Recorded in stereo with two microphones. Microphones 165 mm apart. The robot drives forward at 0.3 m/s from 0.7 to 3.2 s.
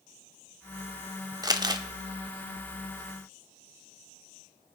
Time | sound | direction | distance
1.4 | crumpling | 25° right (ahead or behind) | 0.9 m